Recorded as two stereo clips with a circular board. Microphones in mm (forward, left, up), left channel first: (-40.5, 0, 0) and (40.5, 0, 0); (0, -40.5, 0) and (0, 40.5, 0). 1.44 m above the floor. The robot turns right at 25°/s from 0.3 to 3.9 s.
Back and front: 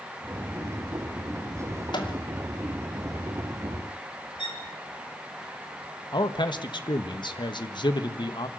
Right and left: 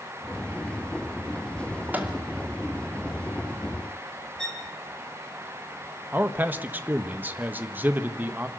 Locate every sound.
1.9 s a microwave: 160° left, 2.5 m; by 2.2 s 165° left, 2.5 m
4.4 s a violin: 170° right, 3.5 m
6.1 s a man speaking: 160° left, 1.5 m